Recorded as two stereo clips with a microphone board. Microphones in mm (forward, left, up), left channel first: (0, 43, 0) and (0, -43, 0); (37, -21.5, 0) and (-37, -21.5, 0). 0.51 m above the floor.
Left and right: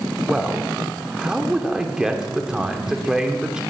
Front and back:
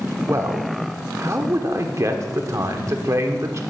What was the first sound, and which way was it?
A man speaking, 170° right.